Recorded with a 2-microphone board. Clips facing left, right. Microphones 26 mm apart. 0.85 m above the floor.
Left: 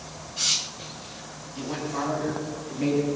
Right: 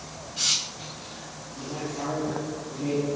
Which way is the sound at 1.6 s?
65° left (ahead or behind).